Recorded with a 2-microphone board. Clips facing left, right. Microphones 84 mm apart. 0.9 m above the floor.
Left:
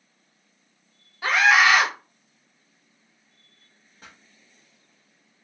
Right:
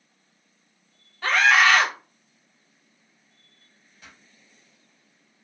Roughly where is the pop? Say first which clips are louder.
Left 2 dB; left.